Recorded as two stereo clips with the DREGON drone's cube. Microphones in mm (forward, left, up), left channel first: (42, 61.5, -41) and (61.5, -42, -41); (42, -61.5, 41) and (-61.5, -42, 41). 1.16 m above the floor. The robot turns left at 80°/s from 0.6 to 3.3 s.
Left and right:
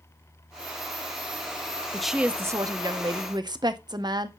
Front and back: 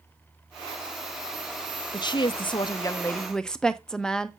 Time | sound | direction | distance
1.9 | a woman speaking | 15° left | 0.6 m